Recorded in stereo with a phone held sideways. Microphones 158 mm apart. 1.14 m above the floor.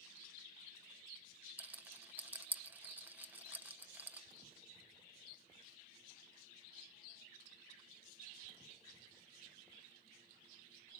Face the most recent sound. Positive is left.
turn(degrees=-10)  # may be behind; listen again after turning